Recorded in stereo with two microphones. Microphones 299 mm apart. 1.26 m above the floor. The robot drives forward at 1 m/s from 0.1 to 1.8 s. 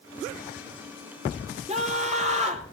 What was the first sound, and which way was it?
A scream, 25° right (ahead or behind).